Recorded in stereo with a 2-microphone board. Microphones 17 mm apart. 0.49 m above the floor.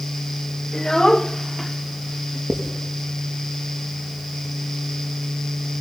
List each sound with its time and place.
0.7 s a child speaking: 40° left (ahead or behind), 1.4 m; by 2.4 s 25° right (ahead or behind), 1.3 m
2.5 s writing: 50° right (ahead or behind), 4.5 m